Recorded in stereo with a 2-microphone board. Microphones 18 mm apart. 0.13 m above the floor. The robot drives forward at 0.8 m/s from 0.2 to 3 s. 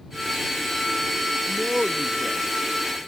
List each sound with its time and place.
1.5 s a man speaking: 50° right (ahead or behind); by 3.0 s 45° right (ahead or behind)